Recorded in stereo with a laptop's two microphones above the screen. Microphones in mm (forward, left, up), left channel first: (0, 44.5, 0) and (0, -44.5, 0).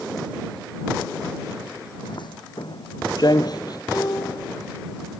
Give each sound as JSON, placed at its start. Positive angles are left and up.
{"t": 2.0, "sound": "footsteps", "side_deg": 65}
{"t": 3.9, "sound": "a piano", "side_deg": 45}